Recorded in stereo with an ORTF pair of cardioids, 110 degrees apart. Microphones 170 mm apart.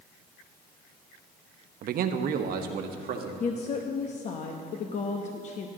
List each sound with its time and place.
1.8 s a man speaking: 60° right, 0.8 m; by 3.3 s 65° right, 1.6 m
3.4 s a woman speaking: 45° left, 0.9 m